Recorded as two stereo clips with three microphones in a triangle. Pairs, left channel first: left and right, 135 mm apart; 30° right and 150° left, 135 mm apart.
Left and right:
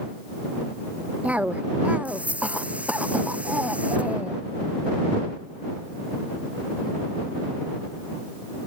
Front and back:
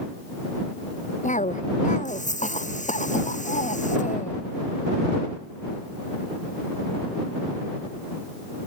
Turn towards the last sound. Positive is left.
turn(degrees=-10)